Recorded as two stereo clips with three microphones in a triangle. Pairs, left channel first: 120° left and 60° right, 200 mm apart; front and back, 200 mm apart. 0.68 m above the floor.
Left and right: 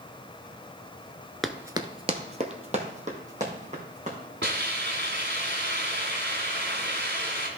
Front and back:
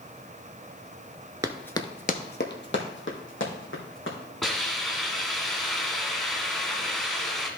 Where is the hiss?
90° right, 1.5 m.